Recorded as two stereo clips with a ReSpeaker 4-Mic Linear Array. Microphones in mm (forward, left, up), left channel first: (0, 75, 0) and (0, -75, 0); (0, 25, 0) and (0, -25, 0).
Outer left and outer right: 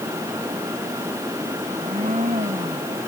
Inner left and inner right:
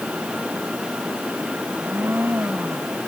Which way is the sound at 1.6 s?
55° right (ahead or behind).